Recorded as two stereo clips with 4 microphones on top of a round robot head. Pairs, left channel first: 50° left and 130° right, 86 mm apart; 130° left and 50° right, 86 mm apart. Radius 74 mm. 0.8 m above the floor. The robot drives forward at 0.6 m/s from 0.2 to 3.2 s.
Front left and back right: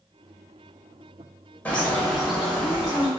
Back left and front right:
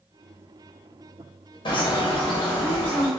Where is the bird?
120° left, 0.9 m; by 3.1 s 150° left, 1.5 m.